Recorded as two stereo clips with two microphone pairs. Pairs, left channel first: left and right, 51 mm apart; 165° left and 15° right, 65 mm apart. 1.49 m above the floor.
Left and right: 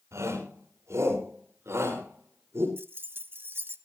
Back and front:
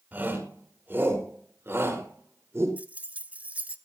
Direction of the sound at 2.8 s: 75° right.